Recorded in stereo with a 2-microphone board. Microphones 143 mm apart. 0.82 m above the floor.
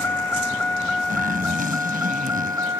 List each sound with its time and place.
0.0 s a vehicle: 15° left (ahead or behind); by 2.8 s 20° right (ahead or behind)
1.1 s a zipper: 80° right